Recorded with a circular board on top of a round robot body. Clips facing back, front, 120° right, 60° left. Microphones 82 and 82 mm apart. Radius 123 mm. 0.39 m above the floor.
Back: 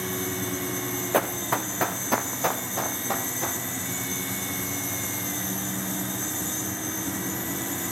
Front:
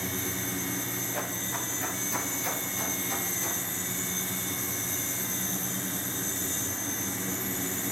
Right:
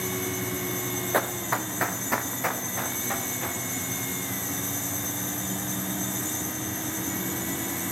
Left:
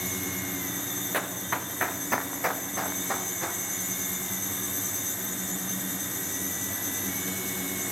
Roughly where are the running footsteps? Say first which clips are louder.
Back 13 dB, right 4 dB; behind.